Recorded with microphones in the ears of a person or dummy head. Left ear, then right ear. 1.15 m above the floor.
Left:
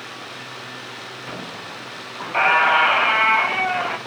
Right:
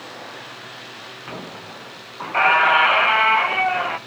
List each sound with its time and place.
1.3 s a squeak: centre (ahead or behind), 0.6 m